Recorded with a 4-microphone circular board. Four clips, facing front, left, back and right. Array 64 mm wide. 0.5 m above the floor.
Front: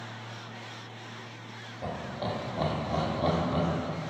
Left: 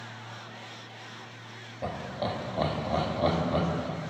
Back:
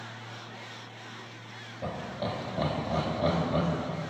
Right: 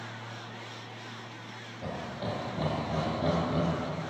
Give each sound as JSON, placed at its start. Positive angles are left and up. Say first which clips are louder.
{"t": 1.8, "sound": "laughter", "louder": "left 4 dB, even", "azimuth_deg": 90, "distance_m": 1.1}